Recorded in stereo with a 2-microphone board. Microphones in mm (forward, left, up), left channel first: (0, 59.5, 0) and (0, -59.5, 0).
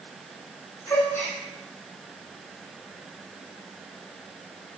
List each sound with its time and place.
0.9 s a gasp: 25° left (ahead or behind), 8 m